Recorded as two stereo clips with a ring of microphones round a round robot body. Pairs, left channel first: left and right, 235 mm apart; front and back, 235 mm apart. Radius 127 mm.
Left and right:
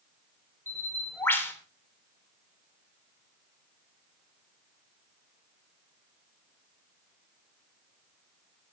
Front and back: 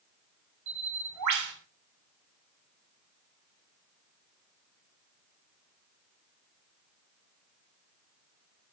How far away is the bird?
About 3 m.